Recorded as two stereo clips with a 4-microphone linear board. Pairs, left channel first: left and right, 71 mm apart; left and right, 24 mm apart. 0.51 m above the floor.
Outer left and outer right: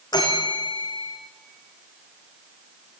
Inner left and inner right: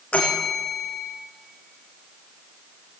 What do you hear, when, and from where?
0.1 s a bell: 70° left (ahead or behind), 5.5 m